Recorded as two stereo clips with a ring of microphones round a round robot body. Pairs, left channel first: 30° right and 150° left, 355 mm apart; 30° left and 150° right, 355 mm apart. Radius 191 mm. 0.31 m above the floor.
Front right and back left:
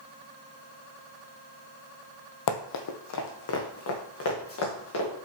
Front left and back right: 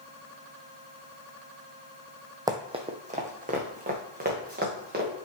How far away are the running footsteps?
About 0.8 m.